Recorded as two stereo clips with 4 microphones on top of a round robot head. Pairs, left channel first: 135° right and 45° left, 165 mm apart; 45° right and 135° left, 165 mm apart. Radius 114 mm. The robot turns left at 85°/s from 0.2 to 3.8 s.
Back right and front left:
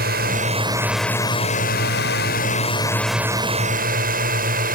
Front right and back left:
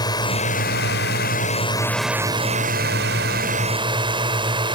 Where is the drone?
20° left; by 4.8 s 75° left.